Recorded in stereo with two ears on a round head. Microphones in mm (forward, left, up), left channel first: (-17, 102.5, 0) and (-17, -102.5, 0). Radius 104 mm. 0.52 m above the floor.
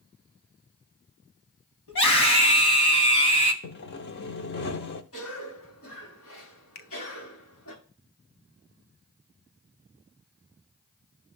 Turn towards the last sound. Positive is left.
turn(degrees=45)  # may be behind; listen again after turning